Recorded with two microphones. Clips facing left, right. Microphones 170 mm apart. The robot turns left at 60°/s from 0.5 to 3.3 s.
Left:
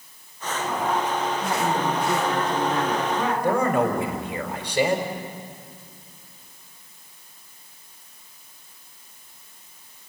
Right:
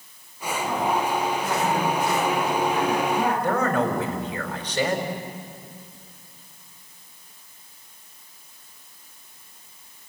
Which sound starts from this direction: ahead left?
A woman speaking, at 1.4 s.